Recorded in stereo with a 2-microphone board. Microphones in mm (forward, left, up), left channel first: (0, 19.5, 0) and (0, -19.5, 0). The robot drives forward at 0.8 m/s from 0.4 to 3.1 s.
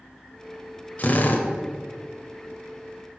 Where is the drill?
45° left (ahead or behind), 1.1 m; by 1.5 s 55° left (ahead or behind), 0.9 m.